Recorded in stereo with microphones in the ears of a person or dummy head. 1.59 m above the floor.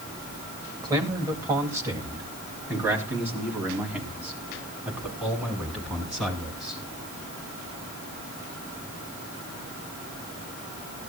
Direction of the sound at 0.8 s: 25° right (ahead or behind).